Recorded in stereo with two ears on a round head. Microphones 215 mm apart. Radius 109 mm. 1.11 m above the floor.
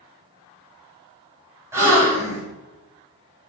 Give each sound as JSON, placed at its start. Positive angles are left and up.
{"t": 1.7, "sound": "a gasp", "side_deg": -10, "distance_m": 1.8}